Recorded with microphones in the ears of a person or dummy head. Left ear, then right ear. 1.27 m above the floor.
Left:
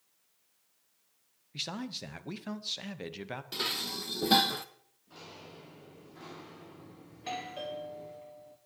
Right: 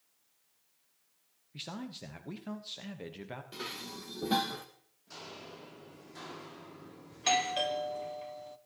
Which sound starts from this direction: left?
Dishes clattering, at 3.5 s.